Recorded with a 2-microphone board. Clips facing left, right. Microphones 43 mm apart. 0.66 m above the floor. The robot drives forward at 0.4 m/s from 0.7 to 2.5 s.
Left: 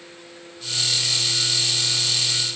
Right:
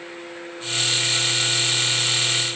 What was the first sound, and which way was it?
Only background noise.